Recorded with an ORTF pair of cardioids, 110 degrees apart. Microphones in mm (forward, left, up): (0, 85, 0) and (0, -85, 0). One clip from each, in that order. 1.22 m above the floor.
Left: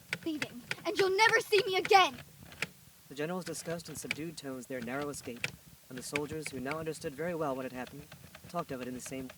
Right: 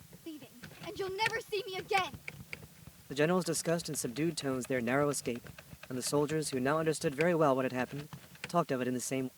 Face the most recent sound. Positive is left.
turn(degrees=-40)